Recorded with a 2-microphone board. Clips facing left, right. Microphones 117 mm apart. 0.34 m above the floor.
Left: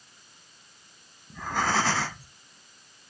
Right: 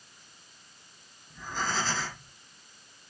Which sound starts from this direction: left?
Breathing, at 1.3 s.